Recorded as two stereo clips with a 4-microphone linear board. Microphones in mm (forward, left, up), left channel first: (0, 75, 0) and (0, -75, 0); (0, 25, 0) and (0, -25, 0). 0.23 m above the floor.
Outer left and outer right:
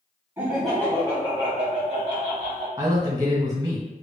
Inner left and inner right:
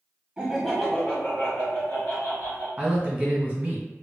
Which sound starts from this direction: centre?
Laughter, at 0.4 s.